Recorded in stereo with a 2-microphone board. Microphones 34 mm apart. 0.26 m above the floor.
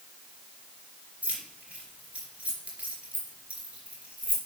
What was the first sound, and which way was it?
Keys jangling, 35° right (ahead or behind).